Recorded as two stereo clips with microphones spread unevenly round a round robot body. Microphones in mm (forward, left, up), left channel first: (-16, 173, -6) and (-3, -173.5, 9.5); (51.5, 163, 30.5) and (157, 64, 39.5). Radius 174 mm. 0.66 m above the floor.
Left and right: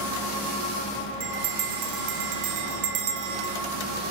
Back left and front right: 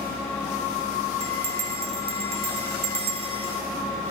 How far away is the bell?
About 0.6 m.